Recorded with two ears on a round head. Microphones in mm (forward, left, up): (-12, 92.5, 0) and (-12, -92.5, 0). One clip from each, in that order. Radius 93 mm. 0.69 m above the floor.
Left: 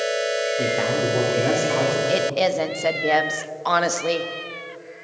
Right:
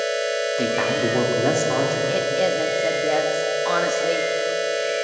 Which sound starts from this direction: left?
A woman speaking, at 2.1 s.